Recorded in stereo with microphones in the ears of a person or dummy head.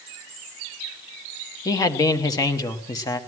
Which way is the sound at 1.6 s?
20° left (ahead or behind).